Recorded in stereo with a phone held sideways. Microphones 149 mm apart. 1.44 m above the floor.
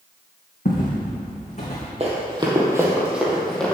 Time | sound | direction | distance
0.7 | footsteps | 55° left (ahead or behind) | 3 m
2.0 | running footsteps | 40° right (ahead or behind) | 2.5 m